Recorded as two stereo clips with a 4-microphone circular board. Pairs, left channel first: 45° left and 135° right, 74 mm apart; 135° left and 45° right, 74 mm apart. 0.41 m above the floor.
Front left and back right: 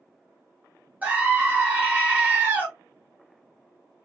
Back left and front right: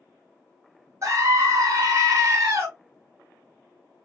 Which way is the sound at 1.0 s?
70° right.